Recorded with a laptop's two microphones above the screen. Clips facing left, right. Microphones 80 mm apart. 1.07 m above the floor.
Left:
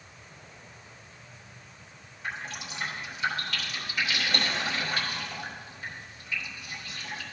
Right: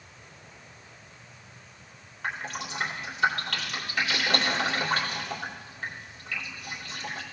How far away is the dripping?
About 2.5 m.